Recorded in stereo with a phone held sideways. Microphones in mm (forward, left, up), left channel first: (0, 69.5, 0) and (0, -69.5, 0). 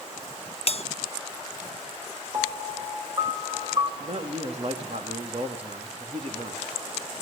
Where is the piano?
35° right (ahead or behind), 2 m.